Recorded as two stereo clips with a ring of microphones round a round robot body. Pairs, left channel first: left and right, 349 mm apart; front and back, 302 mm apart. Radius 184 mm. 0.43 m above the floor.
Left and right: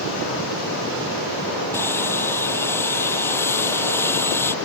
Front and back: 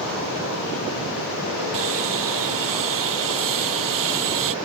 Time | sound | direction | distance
1.7 | sawing | 175° left | ?